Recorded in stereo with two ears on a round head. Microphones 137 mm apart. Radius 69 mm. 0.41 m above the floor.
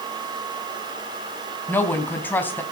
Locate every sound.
1.7 s a woman speaking: 15° left (ahead or behind), 3.5 m